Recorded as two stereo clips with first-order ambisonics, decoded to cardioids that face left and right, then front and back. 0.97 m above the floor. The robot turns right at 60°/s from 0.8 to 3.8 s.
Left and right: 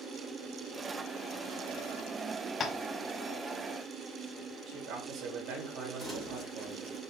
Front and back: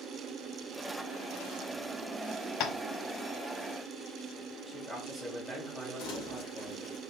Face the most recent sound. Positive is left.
turn(degrees=-10)